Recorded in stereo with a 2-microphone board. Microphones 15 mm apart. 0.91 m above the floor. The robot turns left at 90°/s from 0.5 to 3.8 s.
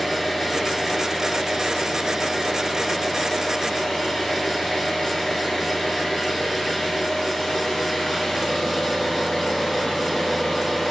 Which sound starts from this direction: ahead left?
An engine running, at 0.0 s.